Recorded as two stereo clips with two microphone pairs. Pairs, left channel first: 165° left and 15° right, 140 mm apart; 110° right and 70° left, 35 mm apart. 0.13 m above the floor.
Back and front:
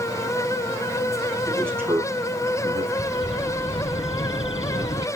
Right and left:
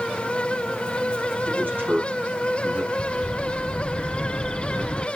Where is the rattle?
No rattle in this recording.